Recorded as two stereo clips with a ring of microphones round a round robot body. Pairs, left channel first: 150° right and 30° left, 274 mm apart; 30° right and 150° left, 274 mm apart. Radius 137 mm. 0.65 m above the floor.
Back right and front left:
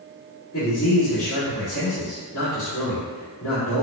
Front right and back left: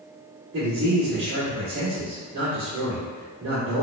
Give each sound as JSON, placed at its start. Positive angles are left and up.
{"t": 0.5, "sound": "a man speaking", "azimuth_deg": 180, "distance_m": 1.9}